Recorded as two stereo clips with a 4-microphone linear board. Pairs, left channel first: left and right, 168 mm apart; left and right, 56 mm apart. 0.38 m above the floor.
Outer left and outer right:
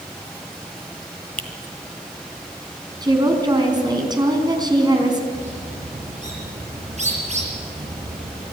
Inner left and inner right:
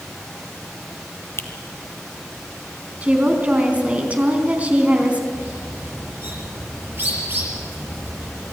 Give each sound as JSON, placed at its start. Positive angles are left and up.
{"t": 1.4, "sound": "a finger snap", "side_deg": 55, "distance_m": 1.6}
{"t": 3.0, "sound": "a woman speaking", "side_deg": -25, "distance_m": 3.5}
{"t": 5.3, "sound": "a bird", "side_deg": -45, "distance_m": 7.0}